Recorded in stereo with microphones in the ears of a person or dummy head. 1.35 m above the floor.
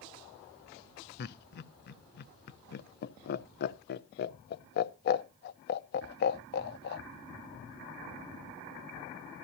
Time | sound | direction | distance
1.2 | laughter | 55° left (ahead or behind) | 0.7 m